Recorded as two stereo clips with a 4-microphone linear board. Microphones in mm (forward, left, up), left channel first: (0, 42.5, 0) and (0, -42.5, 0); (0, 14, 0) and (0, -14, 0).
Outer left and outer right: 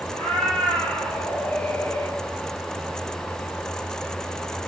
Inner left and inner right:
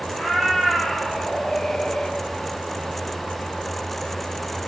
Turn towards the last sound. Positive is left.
turn(degrees=30)  # may be behind; listen again after turning